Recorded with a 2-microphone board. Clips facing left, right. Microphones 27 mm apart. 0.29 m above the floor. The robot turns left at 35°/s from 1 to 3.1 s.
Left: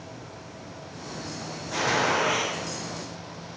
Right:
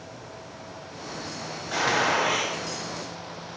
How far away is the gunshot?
About 0.8 m.